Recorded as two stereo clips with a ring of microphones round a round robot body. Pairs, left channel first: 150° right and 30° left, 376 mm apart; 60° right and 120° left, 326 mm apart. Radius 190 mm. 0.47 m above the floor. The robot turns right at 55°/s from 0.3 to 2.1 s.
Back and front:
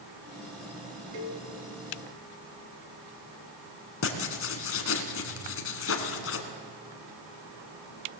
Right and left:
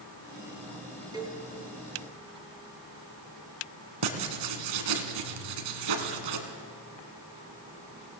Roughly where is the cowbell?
Ahead left.